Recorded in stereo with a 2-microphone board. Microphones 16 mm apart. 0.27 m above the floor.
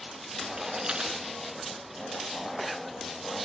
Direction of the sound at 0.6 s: 60° right (ahead or behind).